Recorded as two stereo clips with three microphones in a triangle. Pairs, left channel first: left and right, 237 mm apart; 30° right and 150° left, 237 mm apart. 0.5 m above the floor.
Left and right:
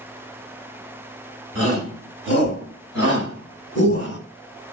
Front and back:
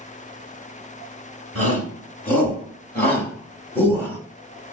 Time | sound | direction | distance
1.6 | a shout | 55° left | 6.5 m